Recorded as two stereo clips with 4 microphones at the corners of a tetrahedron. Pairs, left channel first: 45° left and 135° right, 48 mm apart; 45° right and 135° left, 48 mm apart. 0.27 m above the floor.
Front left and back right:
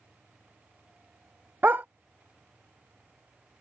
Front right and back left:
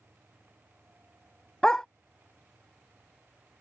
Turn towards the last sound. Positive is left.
turn(degrees=-115)